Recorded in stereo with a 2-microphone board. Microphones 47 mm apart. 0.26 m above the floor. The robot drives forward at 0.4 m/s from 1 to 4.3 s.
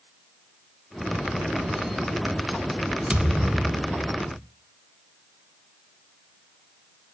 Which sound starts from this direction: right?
A thud, at 3.1 s.